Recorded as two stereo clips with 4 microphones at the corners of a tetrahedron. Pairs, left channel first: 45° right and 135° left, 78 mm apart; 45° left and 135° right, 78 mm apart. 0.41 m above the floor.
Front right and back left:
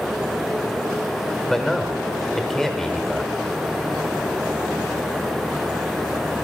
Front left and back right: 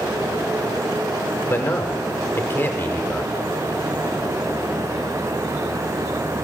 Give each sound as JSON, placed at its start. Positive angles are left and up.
{"t": 1.5, "sound": "a man speaking", "azimuth_deg": 35, "distance_m": 1.1}